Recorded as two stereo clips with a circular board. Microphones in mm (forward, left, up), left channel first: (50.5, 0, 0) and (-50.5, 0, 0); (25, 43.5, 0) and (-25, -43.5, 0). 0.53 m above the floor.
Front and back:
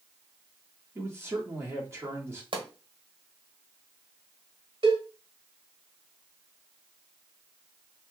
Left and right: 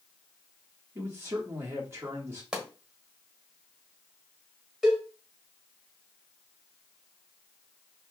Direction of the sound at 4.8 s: 150° left.